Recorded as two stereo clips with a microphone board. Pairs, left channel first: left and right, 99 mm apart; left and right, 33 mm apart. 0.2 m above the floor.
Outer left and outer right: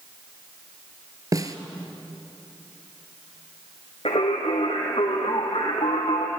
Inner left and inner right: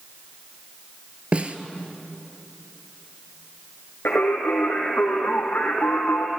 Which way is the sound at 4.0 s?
70° left (ahead or behind).